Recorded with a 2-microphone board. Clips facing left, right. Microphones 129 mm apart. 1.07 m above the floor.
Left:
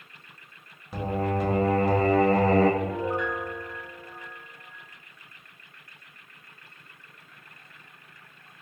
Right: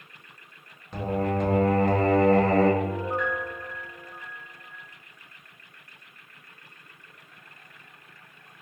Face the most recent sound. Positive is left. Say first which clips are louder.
# even
turn(degrees=20)  # may be behind; listen again after turning